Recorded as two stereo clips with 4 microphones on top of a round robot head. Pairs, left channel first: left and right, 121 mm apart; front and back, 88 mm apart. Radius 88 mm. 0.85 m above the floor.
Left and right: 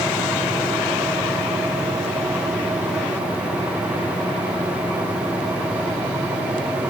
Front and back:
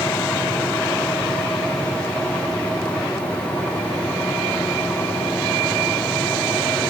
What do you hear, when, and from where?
Only background noise.